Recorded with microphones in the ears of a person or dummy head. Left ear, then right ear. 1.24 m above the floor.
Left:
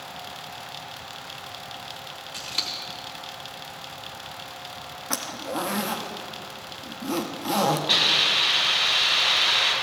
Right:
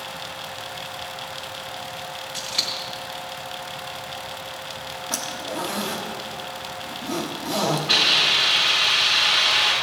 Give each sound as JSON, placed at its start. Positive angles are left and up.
{"t": 2.3, "sound": "scissors", "side_deg": 40, "distance_m": 1.2}
{"t": 5.1, "sound": "a zipper", "side_deg": 45, "distance_m": 0.8}
{"t": 7.9, "sound": "a hiss", "side_deg": 20, "distance_m": 4.0}